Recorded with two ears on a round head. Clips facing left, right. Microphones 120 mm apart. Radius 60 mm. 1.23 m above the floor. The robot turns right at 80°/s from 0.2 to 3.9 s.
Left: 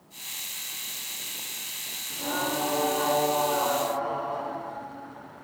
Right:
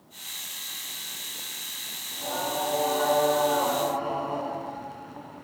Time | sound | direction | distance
2.1 | singing | 60° left | 2.5 m